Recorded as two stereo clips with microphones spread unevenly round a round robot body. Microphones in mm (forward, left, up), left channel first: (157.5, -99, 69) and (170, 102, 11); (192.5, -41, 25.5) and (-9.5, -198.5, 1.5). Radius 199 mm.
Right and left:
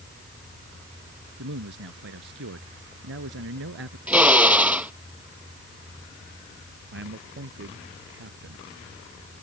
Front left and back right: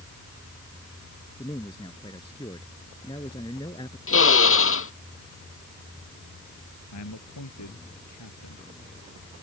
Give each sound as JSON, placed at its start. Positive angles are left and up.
{"t": 1.4, "sound": "a man speaking", "azimuth_deg": 120}
{"t": 4.1, "sound": "a drill", "azimuth_deg": 5}
{"t": 6.9, "sound": "a man speaking", "azimuth_deg": 75}